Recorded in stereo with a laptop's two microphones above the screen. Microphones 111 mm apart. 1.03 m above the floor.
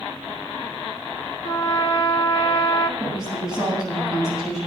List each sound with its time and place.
1.4 s a trumpet: 40° left (ahead or behind), 1.2 m
3.0 s a woman speaking: 10° right (ahead or behind), 7.5 m